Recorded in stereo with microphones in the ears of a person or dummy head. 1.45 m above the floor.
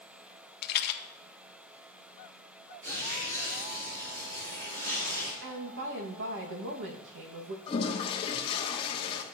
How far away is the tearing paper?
About 5 m.